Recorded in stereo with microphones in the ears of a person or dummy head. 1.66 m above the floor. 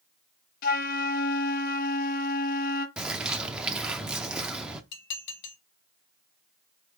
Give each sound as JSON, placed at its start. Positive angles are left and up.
{"t": 0.6, "sound": "a flute", "side_deg": 50, "distance_m": 0.7}
{"t": 3.0, "sound": "a bird", "side_deg": -10, "distance_m": 0.5}
{"t": 4.9, "sound": "dishes clattering", "side_deg": 55, "distance_m": 1.4}